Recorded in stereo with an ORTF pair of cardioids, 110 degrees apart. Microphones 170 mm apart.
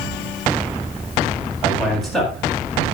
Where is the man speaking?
Straight ahead, 8 m.